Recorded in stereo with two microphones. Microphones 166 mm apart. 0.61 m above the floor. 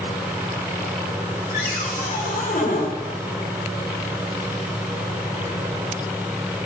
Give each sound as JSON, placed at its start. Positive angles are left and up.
{"t": 1.5, "sound": "a cupboard door", "side_deg": 60, "distance_m": 2.5}